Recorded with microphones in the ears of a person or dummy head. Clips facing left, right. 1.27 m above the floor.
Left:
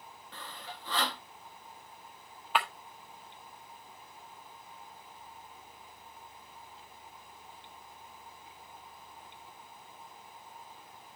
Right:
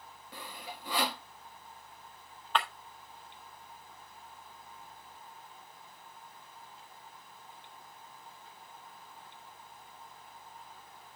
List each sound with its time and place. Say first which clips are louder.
0.3 s sawing: right 1 dB; 15° right (ahead or behind), 0.9 m
2.5 s breaking glass: left 1 dB; 5° left (ahead or behind), 1.3 m